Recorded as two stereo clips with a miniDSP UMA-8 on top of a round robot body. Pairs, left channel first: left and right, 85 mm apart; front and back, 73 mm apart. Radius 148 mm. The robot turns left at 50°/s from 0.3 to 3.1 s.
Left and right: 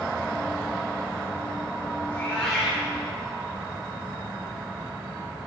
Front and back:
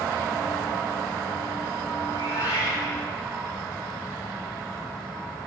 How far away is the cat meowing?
About 7 m.